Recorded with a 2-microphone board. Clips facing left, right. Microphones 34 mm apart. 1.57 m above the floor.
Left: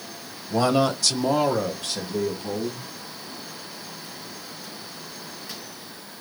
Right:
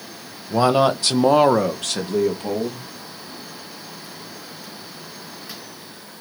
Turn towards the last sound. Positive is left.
turn(degrees=-70)  # may be behind; listen again after turning